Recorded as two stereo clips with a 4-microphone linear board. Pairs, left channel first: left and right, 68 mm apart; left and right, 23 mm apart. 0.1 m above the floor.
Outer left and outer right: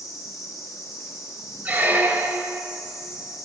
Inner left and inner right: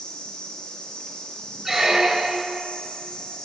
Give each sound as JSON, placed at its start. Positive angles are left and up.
{"t": 0.0, "sound": "an insect", "side_deg": 45, "distance_m": 0.9}
{"t": 1.6, "sound": "a squeak", "side_deg": -25, "distance_m": 0.7}